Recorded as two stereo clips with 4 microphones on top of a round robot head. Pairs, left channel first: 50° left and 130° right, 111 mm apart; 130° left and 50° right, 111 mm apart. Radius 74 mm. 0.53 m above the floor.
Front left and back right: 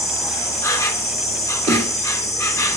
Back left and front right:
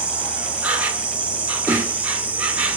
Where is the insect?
20° left, 1.1 m.